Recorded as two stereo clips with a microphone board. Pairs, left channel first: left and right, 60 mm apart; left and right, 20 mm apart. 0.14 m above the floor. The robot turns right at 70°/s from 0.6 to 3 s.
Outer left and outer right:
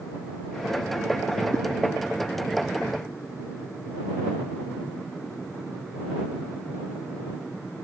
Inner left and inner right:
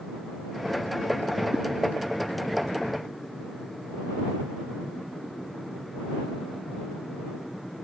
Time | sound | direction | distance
1.5 | a whoosh | 85° right | ?